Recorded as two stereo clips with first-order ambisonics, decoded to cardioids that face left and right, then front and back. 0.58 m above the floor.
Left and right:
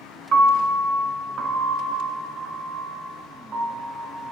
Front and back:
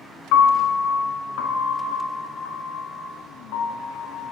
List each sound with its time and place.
0.3 s a piano: 25° right, 1.4 m